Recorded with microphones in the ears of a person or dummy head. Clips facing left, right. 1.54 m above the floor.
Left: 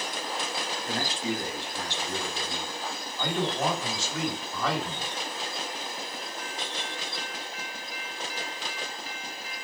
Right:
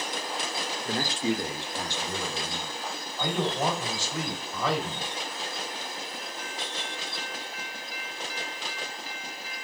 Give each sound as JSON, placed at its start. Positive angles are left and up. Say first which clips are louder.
{"t": 0.8, "sound": "a man speaking", "louder": "right 4 dB", "side_deg": -55, "distance_m": 0.6}
{"t": 3.2, "sound": "a man speaking", "louder": "even", "side_deg": -20, "distance_m": 1.4}